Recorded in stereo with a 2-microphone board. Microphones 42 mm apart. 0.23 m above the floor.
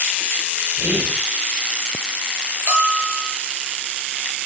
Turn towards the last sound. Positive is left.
turn(degrees=-55)  # may be behind; listen again after turning